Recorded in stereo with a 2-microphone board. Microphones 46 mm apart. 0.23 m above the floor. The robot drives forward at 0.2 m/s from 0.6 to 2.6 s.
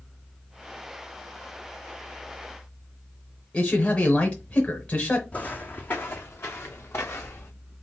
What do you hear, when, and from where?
3.5 s a man speaking: 30° left (ahead or behind), 1.2 m
5.3 s footsteps: 30° left (ahead or behind), 0.8 m; by 7.5 s 65° left (ahead or behind), 1.8 m